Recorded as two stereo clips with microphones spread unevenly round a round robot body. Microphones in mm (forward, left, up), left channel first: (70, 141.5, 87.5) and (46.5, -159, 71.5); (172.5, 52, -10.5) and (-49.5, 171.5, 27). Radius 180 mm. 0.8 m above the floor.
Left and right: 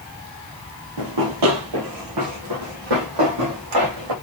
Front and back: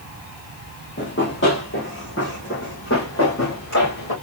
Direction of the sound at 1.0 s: 85° right.